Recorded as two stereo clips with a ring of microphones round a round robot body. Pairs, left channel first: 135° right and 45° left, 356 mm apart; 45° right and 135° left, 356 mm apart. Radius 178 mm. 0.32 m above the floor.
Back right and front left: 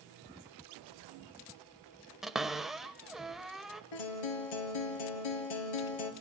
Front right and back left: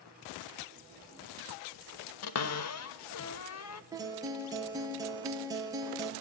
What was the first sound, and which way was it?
A cupboard door, 45° right.